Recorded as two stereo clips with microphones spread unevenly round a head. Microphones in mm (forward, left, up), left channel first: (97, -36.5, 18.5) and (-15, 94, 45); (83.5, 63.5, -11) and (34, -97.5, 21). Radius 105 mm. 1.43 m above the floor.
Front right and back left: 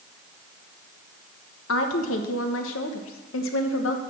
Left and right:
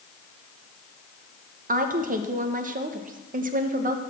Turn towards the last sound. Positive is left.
turn(degrees=-75)